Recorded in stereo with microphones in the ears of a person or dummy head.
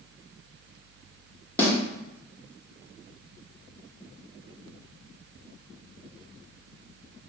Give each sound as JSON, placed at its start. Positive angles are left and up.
{"t": 1.6, "sound": "a snare drum", "side_deg": 10, "distance_m": 1.5}